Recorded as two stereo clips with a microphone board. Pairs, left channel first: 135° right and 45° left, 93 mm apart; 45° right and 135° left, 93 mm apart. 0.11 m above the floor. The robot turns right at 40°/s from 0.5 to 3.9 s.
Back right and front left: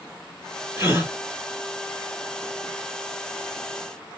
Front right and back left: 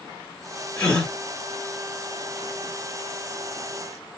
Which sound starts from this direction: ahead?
A gasp, at 0.8 s.